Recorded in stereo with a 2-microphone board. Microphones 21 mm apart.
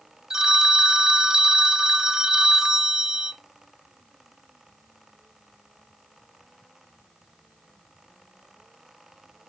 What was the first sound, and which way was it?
A phone ringing, 25° right (ahead or behind).